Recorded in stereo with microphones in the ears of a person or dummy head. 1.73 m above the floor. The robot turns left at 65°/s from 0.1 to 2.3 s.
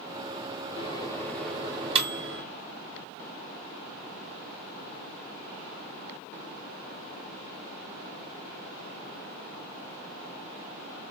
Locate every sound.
0.8 s a microwave: 40° left (ahead or behind), 2 m; by 2.4 s 50° right (ahead or behind), 2 m